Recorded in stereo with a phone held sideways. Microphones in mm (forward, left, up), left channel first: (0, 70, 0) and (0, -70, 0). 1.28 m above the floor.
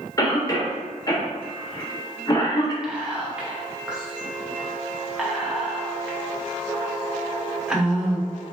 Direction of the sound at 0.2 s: 25° left (ahead or behind).